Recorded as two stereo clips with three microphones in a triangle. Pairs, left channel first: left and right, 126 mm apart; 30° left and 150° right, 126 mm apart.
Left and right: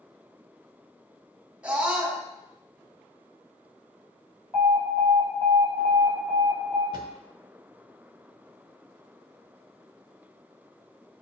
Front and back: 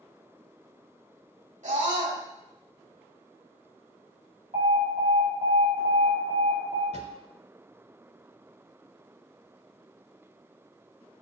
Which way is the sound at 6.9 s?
140° right.